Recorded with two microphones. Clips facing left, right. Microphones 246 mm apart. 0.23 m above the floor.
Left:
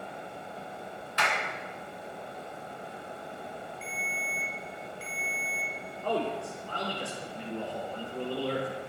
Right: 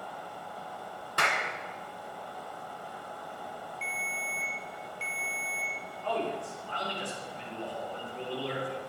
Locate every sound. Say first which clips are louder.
1.2 s a clap: even; 50° right (ahead or behind), 2 m
3.8 s a ringtone: left 2 dB; 25° right (ahead or behind), 3 m
6.0 s a man speaking: left 2 dB; 45° left (ahead or behind), 5.5 m